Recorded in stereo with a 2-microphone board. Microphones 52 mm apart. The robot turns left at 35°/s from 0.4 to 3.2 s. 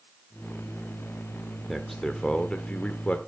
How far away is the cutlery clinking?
No cutlery clinking in this recording.